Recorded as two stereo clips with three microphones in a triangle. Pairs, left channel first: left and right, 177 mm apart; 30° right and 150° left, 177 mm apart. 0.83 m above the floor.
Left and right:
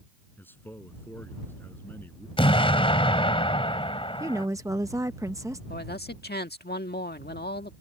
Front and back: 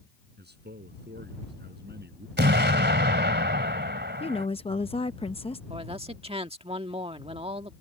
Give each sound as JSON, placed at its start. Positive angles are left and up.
{"t": 0.4, "sound": "a man speaking", "azimuth_deg": 170}
{"t": 2.4, "sound": "an explosion", "azimuth_deg": 150}
{"t": 4.2, "sound": "a woman speaking", "azimuth_deg": -30}
{"t": 5.7, "sound": "a man speaking", "azimuth_deg": 100}